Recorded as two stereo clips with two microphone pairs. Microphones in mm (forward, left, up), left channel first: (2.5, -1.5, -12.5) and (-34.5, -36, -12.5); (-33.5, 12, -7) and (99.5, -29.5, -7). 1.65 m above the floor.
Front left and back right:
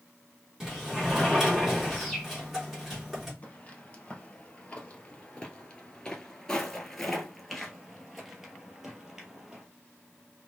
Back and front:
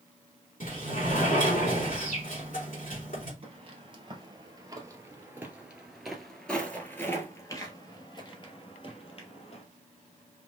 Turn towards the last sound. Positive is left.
turn(degrees=150)